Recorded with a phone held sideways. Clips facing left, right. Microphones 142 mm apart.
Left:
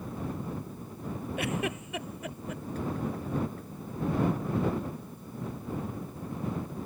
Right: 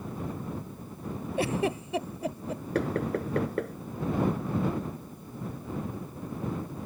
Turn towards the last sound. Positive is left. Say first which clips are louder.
# right 6 dB
turn(degrees=-75)  # may be behind; listen again after turning